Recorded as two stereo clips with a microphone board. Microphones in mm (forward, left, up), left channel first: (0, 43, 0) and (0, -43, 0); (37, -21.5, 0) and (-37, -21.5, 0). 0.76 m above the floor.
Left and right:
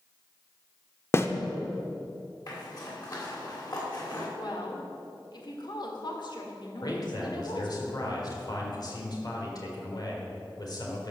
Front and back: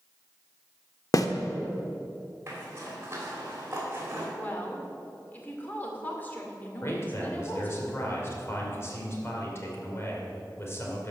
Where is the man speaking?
55° left, 2.5 m.